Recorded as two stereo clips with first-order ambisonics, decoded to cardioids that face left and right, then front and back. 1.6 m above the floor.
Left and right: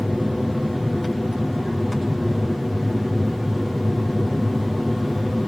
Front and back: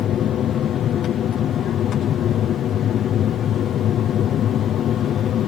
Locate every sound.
0.0 s an aircraft: 5° left